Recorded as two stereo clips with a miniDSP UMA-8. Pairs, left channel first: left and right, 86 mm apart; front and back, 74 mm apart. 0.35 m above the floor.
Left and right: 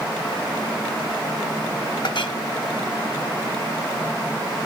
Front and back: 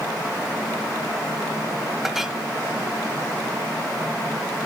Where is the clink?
95° left, 1.2 m.